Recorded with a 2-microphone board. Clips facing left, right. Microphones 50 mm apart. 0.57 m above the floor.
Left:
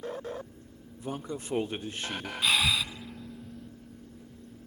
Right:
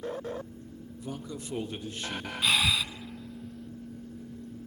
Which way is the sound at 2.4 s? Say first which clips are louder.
Even; centre (ahead or behind).